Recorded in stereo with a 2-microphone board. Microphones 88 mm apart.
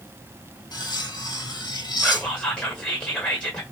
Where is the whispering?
15° left (ahead or behind), 1.4 m.